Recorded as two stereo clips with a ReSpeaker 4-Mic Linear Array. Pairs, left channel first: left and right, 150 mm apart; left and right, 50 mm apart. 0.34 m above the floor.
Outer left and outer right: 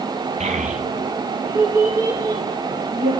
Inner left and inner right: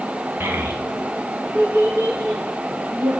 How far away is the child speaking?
About 1.4 m.